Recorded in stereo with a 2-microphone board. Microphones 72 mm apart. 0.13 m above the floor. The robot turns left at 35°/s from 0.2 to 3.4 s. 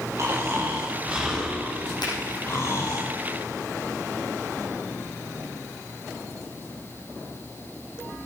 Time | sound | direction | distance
0.2 | snoring | 135° right | 3.5 m
2.0 | a finger snap | 75° left (ahead or behind) | 5.5 m